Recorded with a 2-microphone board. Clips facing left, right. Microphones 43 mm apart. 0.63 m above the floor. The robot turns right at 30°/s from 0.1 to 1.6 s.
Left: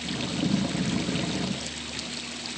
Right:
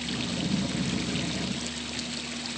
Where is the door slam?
I don't hear a door slam.